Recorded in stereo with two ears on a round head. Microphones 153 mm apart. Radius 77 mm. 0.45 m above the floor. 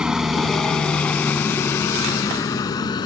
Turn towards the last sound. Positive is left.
turn(degrees=25)  # may be behind; listen again after turning